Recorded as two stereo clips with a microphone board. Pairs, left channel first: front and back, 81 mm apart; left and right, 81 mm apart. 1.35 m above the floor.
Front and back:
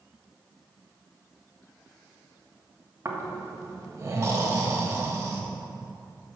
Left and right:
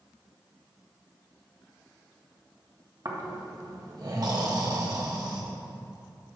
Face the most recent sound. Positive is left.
turn(degrees=-125)